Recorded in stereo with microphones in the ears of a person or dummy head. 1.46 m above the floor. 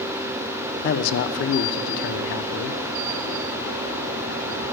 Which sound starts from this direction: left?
A man speaking, at 0.8 s.